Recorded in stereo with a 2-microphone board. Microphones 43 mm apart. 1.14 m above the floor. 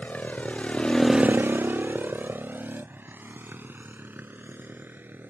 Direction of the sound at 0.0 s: 40° left (ahead or behind).